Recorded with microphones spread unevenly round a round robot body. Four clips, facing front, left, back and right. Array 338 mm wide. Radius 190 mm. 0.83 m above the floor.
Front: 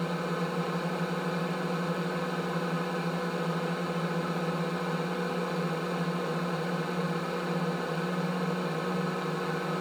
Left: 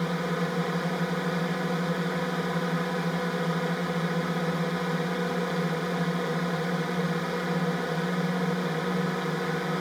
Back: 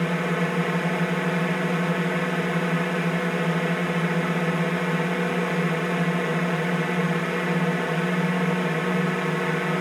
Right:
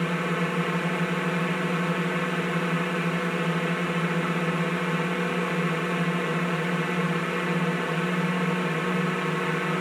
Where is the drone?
170° right.